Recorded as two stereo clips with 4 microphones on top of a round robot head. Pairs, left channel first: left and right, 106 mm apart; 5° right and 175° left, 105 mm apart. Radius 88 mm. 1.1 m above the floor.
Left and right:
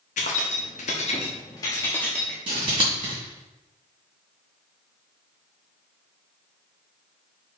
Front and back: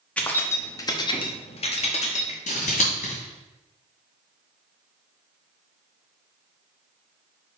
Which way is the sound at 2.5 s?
30° right.